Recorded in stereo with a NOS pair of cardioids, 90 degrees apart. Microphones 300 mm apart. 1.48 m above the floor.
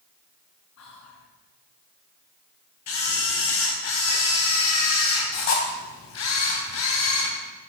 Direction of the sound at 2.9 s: 70° left.